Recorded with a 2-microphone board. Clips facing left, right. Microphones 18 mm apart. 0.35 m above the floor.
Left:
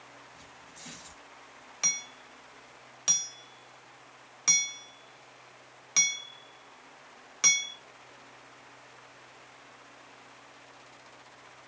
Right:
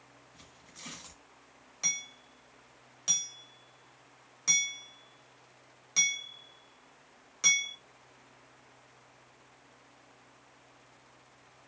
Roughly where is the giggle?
I don't hear a giggle.